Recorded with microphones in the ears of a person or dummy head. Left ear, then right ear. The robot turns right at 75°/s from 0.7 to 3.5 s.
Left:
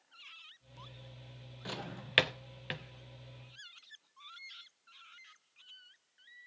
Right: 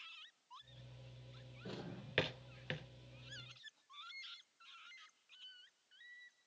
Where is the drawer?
20° left (ahead or behind), 0.5 m; by 2.8 s 5° left (ahead or behind), 0.5 m.